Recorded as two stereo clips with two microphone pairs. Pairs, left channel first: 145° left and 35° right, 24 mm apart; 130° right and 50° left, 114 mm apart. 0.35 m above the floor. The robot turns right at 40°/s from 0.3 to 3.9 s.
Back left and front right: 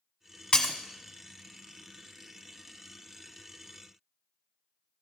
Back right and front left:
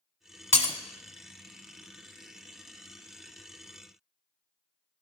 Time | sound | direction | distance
0.5 | breaking glass | 160° right | 1.0 m